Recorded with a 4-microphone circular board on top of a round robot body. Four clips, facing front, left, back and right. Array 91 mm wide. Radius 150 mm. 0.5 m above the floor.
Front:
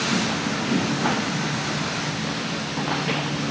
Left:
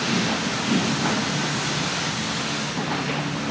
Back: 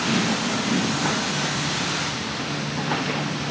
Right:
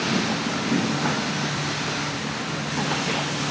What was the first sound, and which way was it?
Only background noise.